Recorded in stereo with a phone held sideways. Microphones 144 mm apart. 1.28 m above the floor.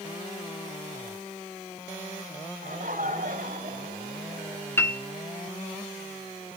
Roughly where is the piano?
Centre.